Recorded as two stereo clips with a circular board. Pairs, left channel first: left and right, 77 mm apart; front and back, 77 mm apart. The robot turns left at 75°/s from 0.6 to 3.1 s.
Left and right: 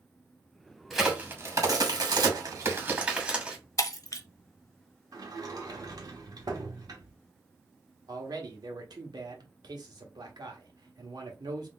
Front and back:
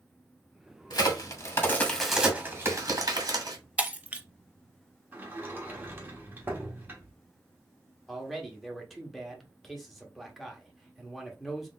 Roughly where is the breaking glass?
Behind left.